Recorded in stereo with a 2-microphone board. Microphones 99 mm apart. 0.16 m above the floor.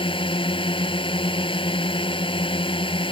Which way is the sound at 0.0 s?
65° left (ahead or behind).